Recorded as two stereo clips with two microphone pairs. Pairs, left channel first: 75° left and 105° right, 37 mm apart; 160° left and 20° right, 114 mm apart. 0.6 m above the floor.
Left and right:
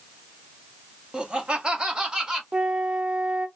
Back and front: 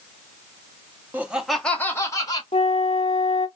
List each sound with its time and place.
1.1 s laughter: 80° right, 0.7 m; by 2.4 s 165° right, 0.9 m
2.5 s a flute: 170° right, 0.6 m